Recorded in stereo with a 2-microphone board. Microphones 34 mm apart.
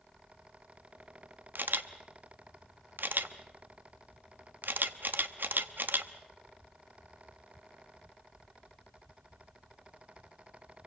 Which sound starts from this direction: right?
A camera shutter, at 1.6 s.